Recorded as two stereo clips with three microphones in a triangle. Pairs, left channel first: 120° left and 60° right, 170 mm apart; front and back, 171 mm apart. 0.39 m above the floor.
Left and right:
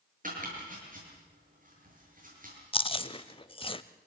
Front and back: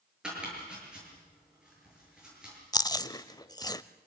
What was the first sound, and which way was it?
Chopping, 95° right.